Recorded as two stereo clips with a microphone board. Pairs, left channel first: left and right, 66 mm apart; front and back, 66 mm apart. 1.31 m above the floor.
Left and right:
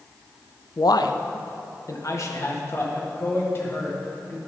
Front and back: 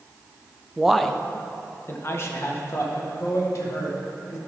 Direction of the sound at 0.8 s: 105° left.